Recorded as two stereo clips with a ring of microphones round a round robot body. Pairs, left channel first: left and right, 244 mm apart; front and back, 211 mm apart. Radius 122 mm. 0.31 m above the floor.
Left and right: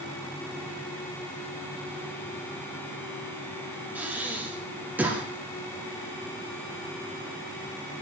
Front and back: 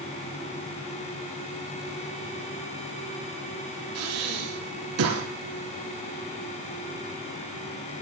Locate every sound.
4.0 s breathing: 175° right, 2 m